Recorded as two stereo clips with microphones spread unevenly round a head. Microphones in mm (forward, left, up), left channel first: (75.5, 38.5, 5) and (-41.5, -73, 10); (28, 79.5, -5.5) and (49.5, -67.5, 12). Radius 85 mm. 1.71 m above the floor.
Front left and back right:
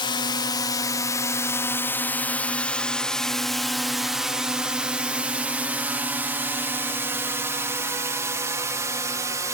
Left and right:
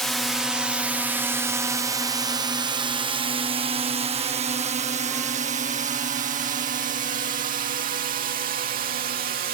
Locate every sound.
0.0 s a drone: 20° left; by 9.6 s 70° right